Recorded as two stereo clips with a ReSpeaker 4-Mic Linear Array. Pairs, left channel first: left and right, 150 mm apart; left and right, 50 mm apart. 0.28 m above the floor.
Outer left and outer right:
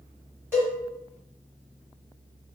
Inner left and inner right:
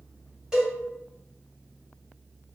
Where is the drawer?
I don't hear a drawer.